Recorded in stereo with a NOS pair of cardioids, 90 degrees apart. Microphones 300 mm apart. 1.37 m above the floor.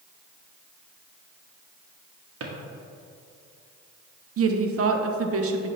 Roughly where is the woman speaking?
Ahead right.